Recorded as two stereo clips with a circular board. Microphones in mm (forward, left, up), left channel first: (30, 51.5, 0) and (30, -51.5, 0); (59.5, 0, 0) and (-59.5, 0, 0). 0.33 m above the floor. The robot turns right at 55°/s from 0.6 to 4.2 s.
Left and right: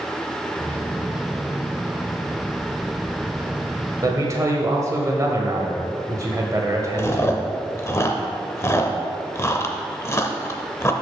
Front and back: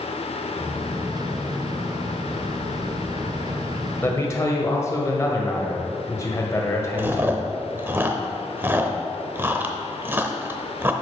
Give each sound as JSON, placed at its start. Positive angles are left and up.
{"t": 4.0, "sound": "a man speaking", "azimuth_deg": -60, "distance_m": 1.5}
{"t": 7.0, "sound": "chewing", "azimuth_deg": 125, "distance_m": 0.7}